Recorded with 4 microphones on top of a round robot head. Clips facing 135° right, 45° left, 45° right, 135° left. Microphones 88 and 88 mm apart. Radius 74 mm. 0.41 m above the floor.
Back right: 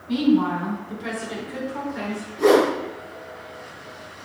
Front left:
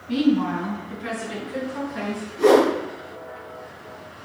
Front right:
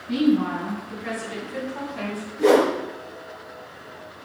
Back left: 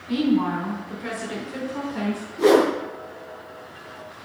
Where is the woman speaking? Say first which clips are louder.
Back right 1 dB, front right 1 dB; 160° left, 3.5 m; by 2.3 s 140° left, 5.5 m.